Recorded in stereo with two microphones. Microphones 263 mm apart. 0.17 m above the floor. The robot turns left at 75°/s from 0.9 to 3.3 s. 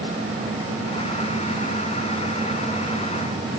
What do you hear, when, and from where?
Only background noise.